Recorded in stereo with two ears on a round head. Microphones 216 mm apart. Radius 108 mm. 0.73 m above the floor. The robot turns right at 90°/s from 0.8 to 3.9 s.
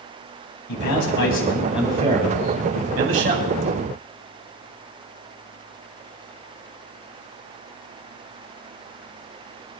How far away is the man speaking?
About 5 m.